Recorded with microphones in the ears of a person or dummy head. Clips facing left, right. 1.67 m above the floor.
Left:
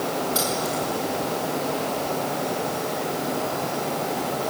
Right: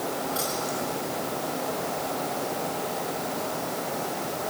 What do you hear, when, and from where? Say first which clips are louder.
0.3 s keys jangling: left 4 dB; 50° left (ahead or behind), 8 m